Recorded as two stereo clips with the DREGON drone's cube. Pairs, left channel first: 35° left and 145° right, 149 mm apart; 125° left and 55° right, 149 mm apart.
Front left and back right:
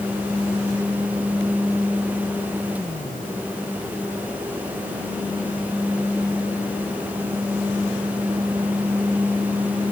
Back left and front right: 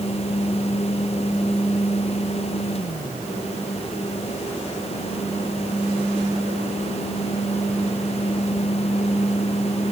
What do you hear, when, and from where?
Only background noise.